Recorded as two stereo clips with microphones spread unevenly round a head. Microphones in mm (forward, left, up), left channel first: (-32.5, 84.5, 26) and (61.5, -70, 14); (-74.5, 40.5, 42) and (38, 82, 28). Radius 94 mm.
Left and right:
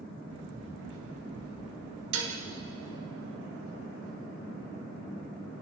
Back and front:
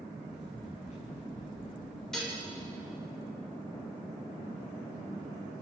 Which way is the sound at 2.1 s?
70° right.